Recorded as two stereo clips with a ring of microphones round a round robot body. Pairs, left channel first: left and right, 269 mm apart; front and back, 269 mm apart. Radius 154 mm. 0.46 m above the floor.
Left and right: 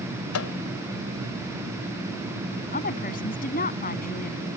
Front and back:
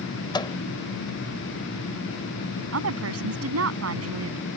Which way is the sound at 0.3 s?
75° left.